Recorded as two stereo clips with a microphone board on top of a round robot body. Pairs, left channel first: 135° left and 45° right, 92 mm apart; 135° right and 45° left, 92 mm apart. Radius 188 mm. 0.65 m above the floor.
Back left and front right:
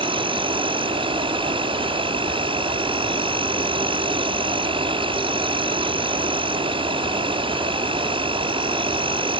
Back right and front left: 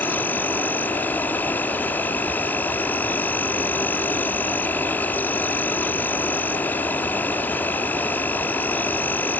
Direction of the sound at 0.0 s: 65° right.